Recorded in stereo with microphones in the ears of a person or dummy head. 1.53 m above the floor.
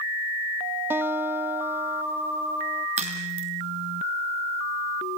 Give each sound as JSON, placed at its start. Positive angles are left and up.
{"t": 0.9, "sound": "a guitar", "side_deg": -10, "distance_m": 0.5}
{"t": 3.0, "sound": "a crack", "side_deg": -35, "distance_m": 3.0}